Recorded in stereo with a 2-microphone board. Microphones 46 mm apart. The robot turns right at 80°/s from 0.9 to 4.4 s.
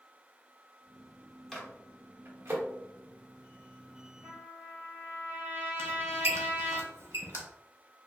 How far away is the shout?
No shout in this recording.